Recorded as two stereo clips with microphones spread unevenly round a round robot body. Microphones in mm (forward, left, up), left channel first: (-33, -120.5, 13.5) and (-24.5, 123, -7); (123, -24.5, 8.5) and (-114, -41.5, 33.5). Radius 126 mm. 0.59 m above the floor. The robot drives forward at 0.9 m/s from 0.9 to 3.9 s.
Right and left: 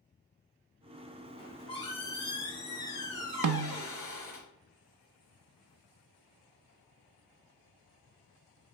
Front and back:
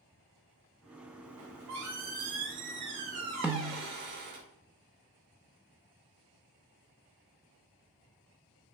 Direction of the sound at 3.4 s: 100° left.